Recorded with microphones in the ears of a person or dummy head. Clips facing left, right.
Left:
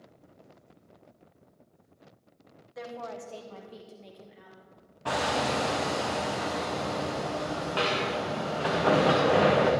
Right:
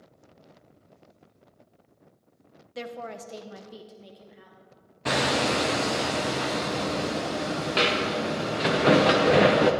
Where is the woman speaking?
40° right (ahead or behind), 0.9 m; by 4.6 s centre (ahead or behind), 2.0 m.